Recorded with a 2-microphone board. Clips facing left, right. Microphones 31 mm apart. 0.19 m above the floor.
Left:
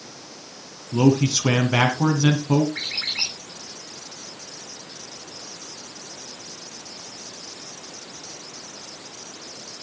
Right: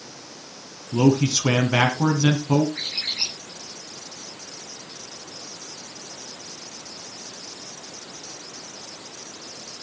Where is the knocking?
I don't hear knocking.